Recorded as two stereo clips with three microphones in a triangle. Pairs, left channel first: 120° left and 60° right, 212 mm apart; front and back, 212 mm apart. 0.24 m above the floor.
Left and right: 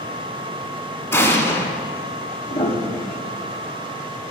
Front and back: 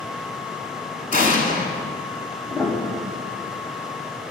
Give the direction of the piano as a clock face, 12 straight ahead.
9 o'clock.